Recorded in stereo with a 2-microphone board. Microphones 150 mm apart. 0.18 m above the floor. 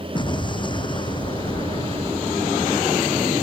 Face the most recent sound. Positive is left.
turn(degrees=30)  # may be behind; listen again after turning